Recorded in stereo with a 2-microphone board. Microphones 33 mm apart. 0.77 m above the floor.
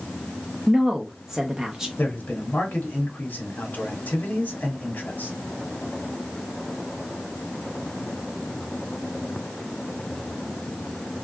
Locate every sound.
0.7 s a woman speaking: 15° right (ahead or behind), 0.5 m
2.0 s a man speaking: 65° left (ahead or behind), 1.2 m